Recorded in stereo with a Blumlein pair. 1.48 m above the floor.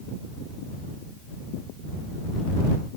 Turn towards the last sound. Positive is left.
No sound to turn to.